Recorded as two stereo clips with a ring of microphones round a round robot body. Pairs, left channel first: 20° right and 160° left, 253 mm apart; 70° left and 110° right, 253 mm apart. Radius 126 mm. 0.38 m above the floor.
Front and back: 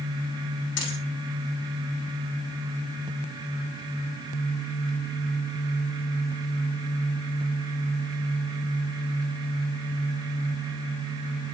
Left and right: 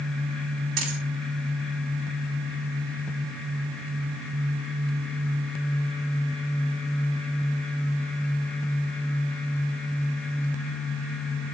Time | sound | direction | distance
0.8 | a dropped coin | 70° right | 5.5 m